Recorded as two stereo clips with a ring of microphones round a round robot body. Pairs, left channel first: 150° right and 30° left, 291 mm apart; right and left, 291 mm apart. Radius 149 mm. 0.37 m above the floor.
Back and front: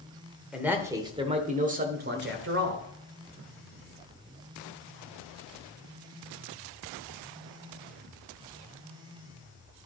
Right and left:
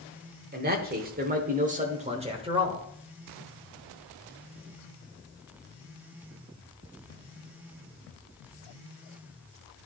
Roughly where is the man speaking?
Behind left.